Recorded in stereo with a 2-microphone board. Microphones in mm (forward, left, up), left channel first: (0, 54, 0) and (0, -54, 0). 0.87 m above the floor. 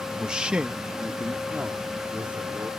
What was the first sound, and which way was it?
A man speaking, 5° right (ahead or behind).